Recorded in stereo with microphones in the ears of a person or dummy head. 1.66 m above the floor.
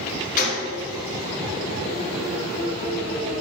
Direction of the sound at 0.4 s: 50° left (ahead or behind).